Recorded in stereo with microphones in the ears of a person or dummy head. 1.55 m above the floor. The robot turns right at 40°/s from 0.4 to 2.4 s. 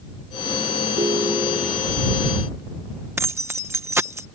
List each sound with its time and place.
1.0 s a ringtone: 25° right; by 1.9 s 15° left
3.2 s keys jangling: 10° right (ahead or behind)